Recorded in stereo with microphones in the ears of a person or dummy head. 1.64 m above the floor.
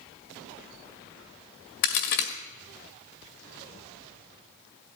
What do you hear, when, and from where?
1.8 s a crack: 65° left (ahead or behind), 1.9 m